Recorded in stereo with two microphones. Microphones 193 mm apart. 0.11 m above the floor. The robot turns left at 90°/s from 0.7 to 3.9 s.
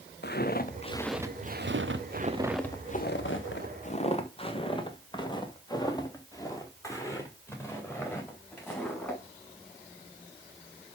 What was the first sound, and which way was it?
Footsteps, 60° left (ahead or behind).